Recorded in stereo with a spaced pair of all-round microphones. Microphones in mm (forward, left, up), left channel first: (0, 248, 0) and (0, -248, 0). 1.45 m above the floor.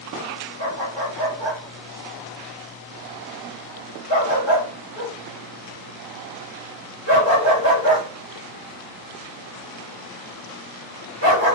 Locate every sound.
0.6 s a dog barking: 30° right (ahead or behind), 1.7 m